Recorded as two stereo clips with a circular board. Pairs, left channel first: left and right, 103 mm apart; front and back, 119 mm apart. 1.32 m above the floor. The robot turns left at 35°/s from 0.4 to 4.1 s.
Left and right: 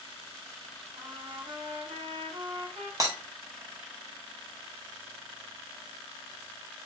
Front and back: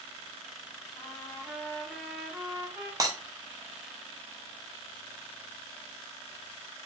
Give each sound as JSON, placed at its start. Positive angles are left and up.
{"t": 1.0, "sound": "a trumpet", "azimuth_deg": -55, "distance_m": 1.4}
{"t": 3.0, "sound": "breaking glass", "azimuth_deg": -130, "distance_m": 0.7}